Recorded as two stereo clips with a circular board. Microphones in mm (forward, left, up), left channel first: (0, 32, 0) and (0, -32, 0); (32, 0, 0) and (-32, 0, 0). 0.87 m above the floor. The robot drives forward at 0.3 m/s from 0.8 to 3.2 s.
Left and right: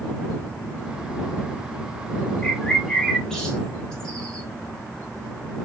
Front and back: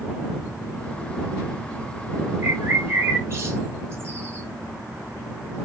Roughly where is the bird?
Behind.